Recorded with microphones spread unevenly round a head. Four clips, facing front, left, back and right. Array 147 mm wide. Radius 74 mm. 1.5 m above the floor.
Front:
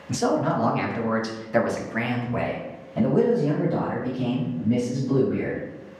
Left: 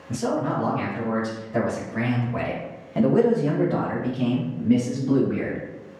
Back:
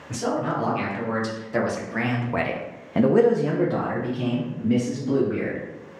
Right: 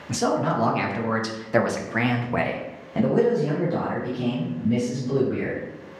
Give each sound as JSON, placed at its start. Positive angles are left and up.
{"t": 0.1, "sound": "a man speaking", "azimuth_deg": -75, "distance_m": 1.7}